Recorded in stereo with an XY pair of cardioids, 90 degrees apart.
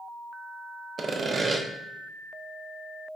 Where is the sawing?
40° right, 1.0 m.